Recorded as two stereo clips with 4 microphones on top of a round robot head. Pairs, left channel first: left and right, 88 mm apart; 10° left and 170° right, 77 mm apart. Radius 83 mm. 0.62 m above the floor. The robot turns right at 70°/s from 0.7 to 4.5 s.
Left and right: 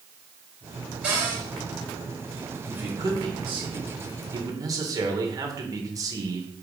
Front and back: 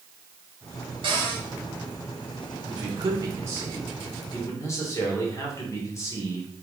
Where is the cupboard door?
170° right, 3.5 m; by 1.4 s 140° right, 3.5 m.